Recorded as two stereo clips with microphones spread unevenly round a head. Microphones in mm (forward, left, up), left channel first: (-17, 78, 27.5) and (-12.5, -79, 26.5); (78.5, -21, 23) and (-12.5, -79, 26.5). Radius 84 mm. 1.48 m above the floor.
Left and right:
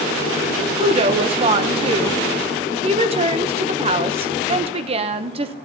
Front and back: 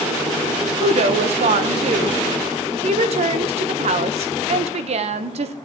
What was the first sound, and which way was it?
A woman speaking, 140° right.